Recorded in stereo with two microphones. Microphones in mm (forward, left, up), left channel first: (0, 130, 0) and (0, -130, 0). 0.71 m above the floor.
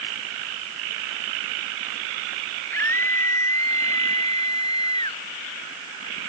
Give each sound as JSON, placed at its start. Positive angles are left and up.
{"t": 2.7, "sound": "a scream", "side_deg": 10}